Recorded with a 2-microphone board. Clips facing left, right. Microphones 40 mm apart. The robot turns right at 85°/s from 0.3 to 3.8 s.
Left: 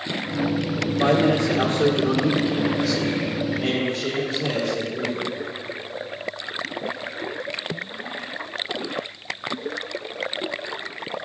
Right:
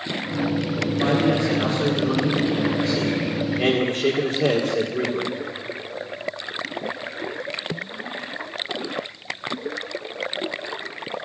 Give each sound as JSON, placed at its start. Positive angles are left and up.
{"t": 0.8, "sound": "a man speaking", "azimuth_deg": 25, "distance_m": 2.5}